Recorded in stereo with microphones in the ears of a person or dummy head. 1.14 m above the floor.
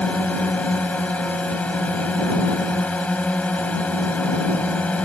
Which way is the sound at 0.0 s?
5° left (ahead or behind).